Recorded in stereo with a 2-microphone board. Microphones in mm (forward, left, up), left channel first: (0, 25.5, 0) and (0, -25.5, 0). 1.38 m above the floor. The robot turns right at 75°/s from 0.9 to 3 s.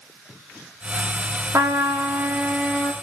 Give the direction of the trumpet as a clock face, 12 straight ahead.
3 o'clock.